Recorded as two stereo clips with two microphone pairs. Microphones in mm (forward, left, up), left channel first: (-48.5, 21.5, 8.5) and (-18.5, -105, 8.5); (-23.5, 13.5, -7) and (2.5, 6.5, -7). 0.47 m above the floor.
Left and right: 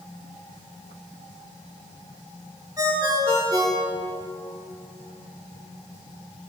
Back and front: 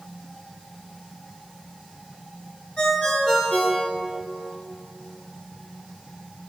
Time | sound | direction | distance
2.8 | a ringtone | 140° right | 3 m